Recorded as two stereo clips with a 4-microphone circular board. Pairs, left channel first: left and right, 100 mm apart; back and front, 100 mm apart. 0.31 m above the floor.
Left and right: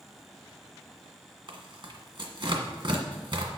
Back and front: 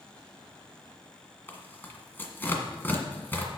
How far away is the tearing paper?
About 1.7 m.